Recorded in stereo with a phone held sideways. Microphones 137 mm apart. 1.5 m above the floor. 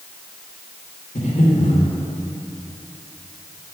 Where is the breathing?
65° left (ahead or behind), 2.0 m.